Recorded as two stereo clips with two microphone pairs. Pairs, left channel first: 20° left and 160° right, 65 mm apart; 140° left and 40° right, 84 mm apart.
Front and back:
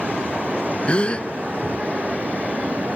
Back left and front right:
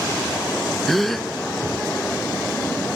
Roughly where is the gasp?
Ahead left.